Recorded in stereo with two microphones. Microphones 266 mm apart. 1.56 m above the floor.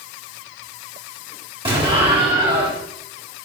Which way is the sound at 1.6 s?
20° right (ahead or behind).